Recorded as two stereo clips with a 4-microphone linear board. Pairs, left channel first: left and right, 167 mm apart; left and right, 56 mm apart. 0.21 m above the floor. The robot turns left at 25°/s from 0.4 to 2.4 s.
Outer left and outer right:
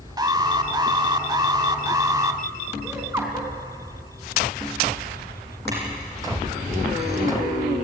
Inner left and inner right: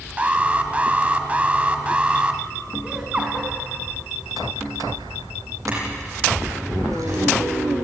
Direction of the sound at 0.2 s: 25° right (ahead or behind).